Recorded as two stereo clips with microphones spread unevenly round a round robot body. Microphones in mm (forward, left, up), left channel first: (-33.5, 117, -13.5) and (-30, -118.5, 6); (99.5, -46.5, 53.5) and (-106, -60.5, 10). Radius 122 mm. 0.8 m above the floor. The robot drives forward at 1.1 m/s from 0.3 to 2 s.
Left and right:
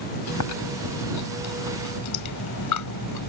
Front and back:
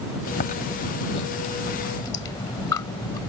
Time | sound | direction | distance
0.3 | chewing | 60° left | ?